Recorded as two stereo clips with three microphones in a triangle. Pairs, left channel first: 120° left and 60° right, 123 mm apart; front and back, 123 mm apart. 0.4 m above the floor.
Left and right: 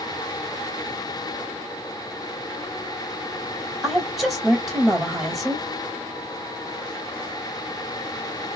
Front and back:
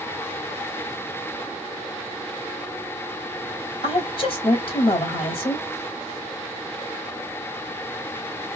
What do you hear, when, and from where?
3.8 s a woman speaking: 25° left, 1.7 m